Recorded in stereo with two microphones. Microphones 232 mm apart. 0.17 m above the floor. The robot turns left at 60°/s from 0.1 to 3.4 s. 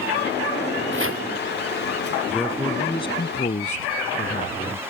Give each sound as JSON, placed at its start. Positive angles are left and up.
{"t": 0.9, "sound": "chopping", "side_deg": -55}
{"t": 2.3, "sound": "a man speaking", "azimuth_deg": -170}